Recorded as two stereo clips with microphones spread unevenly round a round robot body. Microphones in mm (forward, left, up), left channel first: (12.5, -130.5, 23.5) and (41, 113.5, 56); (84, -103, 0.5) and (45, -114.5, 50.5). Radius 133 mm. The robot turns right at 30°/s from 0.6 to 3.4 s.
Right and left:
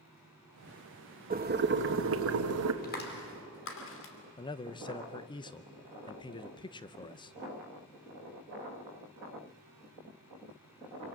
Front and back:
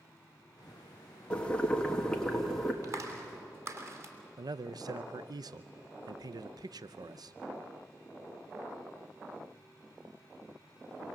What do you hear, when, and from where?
1.3 s boiling: 25° left, 1.4 m; by 2.7 s 70° left, 1.4 m
2.8 s a clap: 150° right, 3 m; by 4.1 s 135° right, 3 m
4.4 s a man speaking: 130° right, 0.7 m